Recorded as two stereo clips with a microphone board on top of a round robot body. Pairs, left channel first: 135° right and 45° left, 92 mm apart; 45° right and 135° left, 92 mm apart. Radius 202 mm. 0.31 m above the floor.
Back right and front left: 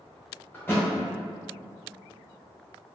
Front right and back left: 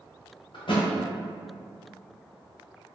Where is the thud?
65° right, 1.0 m.